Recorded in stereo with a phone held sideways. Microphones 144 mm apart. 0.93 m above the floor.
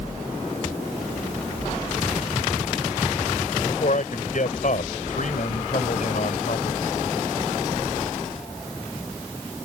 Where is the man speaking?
65° left (ahead or behind).